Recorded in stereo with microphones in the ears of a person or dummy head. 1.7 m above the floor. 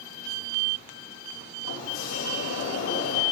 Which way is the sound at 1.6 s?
75° left (ahead or behind).